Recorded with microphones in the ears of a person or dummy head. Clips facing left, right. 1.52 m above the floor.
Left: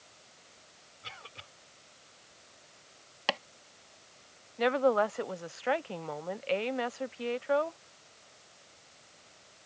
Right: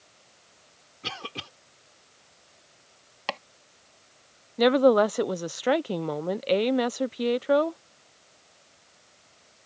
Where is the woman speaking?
55° right (ahead or behind).